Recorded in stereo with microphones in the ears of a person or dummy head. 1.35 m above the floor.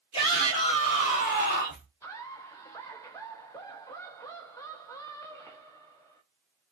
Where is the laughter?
10° left (ahead or behind), 0.8 m.